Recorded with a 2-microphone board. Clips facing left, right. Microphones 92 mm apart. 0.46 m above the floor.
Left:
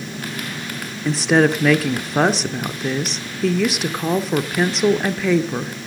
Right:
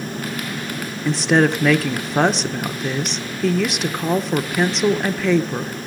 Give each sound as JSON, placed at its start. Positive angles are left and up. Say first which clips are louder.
{"t": 1.1, "sound": "a woman speaking", "louder": "left 1 dB", "side_deg": 0, "distance_m": 1.0}